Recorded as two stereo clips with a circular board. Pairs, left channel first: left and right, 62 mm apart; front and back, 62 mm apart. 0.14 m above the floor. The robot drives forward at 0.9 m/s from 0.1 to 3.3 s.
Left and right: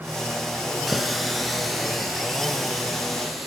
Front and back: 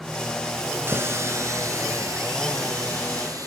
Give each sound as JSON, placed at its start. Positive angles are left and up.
{"t": 0.9, "sound": "a running tap", "azimuth_deg": -175, "distance_m": 1.2}